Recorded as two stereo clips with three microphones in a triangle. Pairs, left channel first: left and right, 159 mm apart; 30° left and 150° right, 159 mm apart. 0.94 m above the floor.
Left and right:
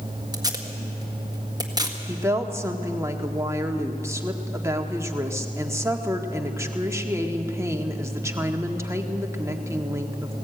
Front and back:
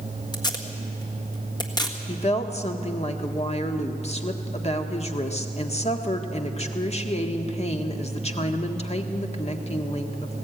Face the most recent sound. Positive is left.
turn(degrees=-20)